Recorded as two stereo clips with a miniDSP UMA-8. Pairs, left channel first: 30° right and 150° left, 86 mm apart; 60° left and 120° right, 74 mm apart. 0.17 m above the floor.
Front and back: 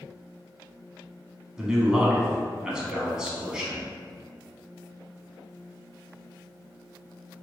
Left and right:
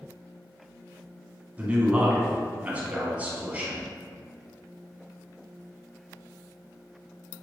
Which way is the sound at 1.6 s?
145° right.